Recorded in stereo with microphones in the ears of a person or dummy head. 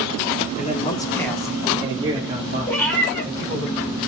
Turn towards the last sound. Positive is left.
turn(degrees=10)  # may be behind; listen again after turning